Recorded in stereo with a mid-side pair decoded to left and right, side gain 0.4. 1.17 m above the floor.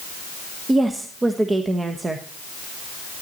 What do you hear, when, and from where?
0.7 s a woman speaking: 30° right, 1.2 m